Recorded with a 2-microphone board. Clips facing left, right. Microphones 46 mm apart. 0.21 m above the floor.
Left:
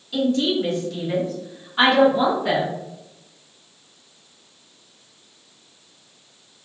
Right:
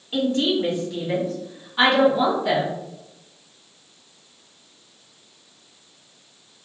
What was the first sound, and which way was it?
A woman speaking, 35° right (ahead or behind).